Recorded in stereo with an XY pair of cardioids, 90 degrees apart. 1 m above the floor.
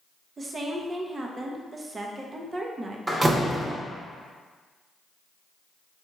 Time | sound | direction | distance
0.4 | a woman speaking | 40° right | 0.6 m
3.1 | a door slam | 30° right | 0.7 m